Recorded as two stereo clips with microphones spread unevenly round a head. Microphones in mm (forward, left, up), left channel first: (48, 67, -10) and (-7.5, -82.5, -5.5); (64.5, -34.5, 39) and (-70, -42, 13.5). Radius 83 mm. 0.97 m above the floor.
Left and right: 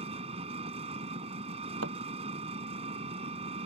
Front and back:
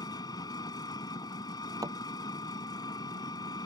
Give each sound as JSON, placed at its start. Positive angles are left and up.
{"t": 0.0, "sound": "an engine running", "azimuth_deg": -60}
{"t": 1.8, "sound": "a thud", "azimuth_deg": -110}